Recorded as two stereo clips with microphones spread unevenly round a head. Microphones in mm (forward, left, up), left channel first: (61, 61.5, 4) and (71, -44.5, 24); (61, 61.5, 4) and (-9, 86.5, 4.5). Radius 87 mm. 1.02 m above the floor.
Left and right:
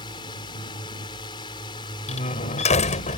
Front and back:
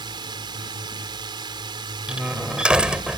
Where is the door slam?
85° left.